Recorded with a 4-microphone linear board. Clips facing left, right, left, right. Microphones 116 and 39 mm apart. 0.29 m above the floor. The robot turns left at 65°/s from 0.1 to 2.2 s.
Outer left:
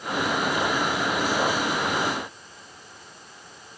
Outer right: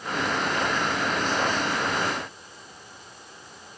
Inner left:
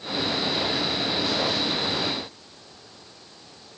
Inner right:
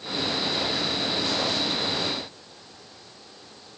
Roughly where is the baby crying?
No baby crying in this recording.